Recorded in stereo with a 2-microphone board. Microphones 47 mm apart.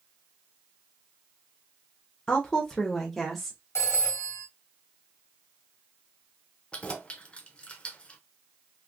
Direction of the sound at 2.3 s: 15° left (ahead or behind).